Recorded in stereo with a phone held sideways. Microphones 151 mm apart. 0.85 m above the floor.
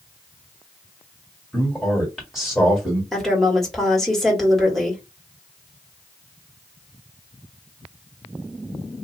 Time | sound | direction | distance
1.5 | a man speaking | centre (ahead or behind) | 1.7 m
3.1 | a woman speaking | 5° left (ahead or behind) | 1.5 m